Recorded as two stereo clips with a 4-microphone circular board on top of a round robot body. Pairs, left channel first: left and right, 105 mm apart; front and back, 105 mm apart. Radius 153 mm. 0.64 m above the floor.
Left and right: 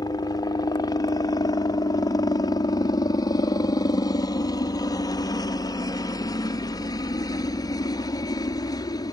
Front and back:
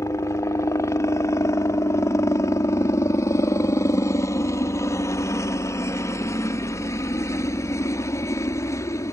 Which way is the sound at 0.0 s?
50° left.